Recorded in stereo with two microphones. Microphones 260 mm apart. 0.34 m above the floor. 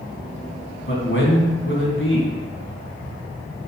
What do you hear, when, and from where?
0.9 s a man speaking: 50° left (ahead or behind), 3 m